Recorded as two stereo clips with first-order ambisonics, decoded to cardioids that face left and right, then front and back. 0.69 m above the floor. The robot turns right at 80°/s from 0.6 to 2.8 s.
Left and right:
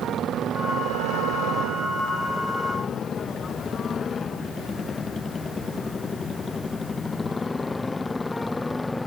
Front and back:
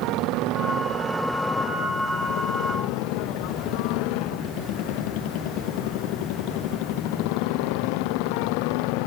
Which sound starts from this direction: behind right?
A motorcycle, at 0.0 s.